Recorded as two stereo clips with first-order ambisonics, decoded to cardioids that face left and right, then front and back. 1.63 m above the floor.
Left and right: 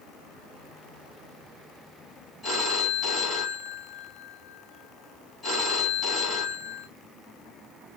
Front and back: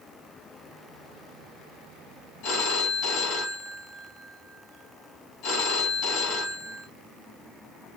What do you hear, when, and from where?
2.4 s a phone ringing: 5° left, 1.9 m